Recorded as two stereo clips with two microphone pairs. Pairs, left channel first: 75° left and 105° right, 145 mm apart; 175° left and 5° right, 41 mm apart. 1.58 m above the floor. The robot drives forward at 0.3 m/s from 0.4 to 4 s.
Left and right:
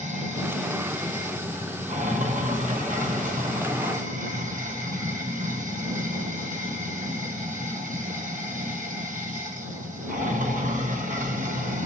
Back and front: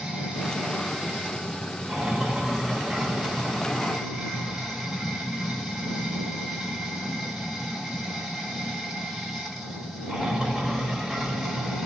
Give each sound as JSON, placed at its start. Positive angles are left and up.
{"t": 0.0, "sound": "running water", "azimuth_deg": -80, "distance_m": 5.5}